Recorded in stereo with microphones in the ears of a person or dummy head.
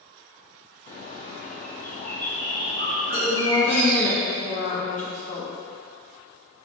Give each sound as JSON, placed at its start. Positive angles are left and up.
{"t": 0.9, "sound": "a bird", "side_deg": 30, "distance_m": 1.1}
{"t": 3.1, "sound": "a woman speaking", "side_deg": 40, "distance_m": 1.3}